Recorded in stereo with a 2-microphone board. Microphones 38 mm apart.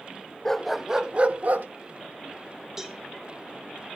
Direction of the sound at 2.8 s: 15° right (ahead or behind).